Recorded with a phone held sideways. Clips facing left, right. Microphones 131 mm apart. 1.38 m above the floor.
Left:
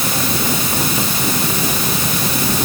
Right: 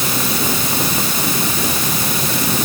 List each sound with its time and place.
Only background noise.